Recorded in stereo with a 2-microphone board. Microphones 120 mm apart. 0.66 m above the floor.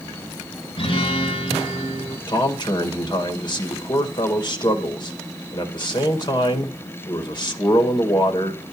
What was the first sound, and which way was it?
A guitar, 45° left (ahead or behind).